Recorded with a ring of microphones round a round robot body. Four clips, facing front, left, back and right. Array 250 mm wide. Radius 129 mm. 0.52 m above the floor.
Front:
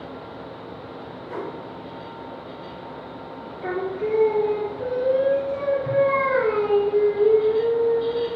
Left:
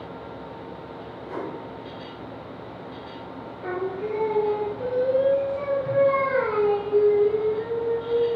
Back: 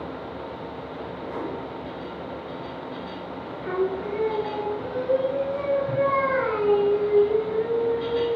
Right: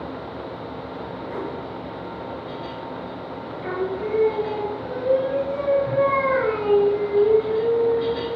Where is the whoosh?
60° left, 4 m.